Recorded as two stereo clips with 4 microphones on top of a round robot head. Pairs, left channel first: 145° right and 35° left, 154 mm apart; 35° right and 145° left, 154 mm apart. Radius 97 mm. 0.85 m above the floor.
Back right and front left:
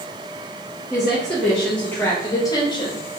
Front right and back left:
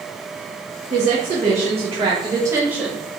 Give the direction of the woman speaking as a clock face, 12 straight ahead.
8 o'clock.